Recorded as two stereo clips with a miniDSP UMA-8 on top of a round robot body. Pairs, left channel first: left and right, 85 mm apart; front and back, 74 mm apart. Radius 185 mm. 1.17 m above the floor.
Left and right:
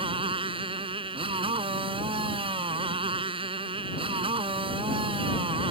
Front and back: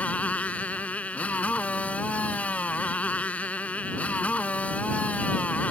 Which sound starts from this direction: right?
A motorcycle, at 0.0 s.